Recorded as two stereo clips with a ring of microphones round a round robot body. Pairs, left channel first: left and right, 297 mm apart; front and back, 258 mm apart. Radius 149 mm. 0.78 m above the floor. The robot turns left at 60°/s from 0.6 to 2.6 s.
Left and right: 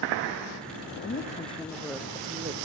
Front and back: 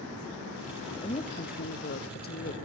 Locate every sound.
1.0 s a woman speaking: 55° left, 1.0 m; by 2.5 s 40° right, 1.0 m